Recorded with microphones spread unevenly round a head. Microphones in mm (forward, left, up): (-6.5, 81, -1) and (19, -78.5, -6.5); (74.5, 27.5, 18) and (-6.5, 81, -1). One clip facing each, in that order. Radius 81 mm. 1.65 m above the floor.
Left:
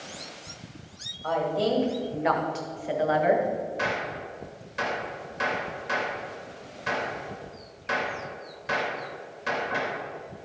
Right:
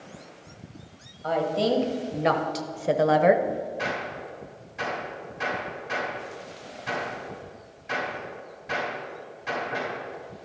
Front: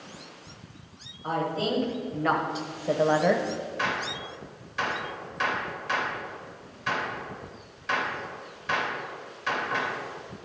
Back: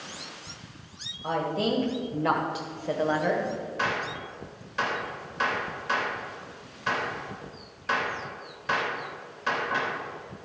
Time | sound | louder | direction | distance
1.2 | a woman speaking | right 1 dB, back 1 dB | 150° right | 1.7 m
3.8 | a gunshot | left 1 dB, back 2 dB | 100° left | 3.5 m